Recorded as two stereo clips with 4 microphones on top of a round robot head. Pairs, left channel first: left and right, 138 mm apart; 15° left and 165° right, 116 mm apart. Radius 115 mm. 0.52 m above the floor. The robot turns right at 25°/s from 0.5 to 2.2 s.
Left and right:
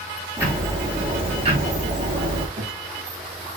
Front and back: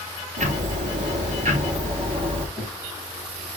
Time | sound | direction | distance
0.4 | ticking | 165° right | 4 m
2.6 | knocking | 65° right | 3.5 m